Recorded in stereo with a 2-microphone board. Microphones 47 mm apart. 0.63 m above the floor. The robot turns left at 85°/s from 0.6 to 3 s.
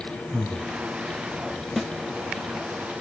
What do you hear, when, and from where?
0.3 s breathing: 55° right (ahead or behind), 0.7 m
1.8 s a snare drum: centre (ahead or behind), 0.6 m; by 1.9 s 10° right (ahead or behind), 0.6 m